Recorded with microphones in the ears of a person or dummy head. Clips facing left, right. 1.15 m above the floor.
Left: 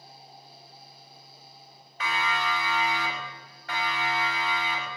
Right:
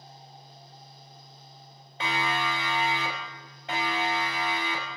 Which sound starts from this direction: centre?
A fan, at 0.0 s.